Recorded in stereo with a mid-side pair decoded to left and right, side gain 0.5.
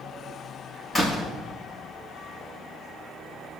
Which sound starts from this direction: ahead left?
A door slam, at 0.9 s.